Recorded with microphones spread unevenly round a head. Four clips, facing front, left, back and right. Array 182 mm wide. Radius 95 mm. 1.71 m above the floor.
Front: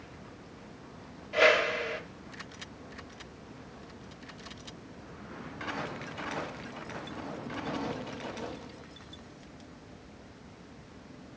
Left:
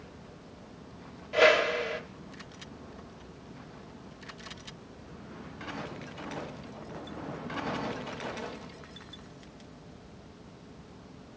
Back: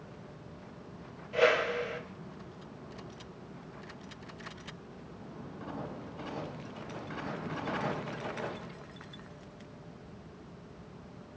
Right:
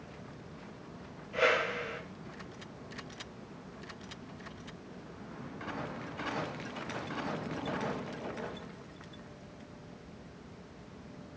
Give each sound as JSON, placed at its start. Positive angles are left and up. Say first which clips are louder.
{"t": 1.3, "sound": "a whoosh", "louder": "left 7 dB, front 2 dB", "azimuth_deg": 85, "distance_m": 1.2}